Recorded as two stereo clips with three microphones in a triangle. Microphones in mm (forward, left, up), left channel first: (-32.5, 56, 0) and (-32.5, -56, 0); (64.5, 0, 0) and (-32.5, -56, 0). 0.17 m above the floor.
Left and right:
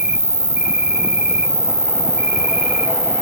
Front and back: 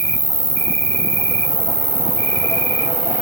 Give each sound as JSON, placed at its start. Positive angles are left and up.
{"t": 0.0, "sound": "an insect", "azimuth_deg": -175, "distance_m": 4.5}